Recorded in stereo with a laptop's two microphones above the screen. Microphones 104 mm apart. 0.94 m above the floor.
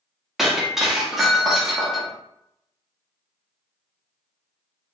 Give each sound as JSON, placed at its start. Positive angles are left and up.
{"t": 0.4, "sound": "breaking glass", "side_deg": -5, "distance_m": 1.0}